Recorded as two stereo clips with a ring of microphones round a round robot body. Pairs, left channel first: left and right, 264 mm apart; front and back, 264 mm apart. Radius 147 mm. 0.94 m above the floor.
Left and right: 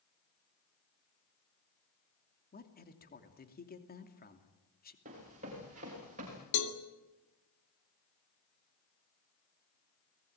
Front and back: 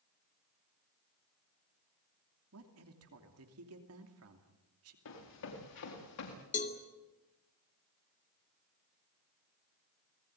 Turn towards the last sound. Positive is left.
turn(degrees=65)